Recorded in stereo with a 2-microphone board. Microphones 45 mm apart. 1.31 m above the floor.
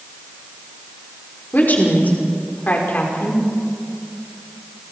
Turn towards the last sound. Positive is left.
turn(degrees=40)  # may be behind; listen again after turning